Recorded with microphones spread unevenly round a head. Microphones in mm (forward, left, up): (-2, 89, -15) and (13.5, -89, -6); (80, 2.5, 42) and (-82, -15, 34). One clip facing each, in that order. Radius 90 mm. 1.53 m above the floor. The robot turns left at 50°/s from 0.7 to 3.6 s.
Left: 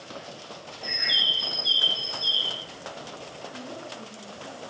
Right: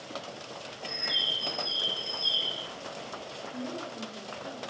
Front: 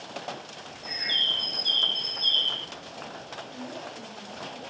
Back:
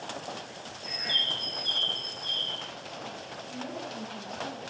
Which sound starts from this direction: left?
A bird, at 0.8 s.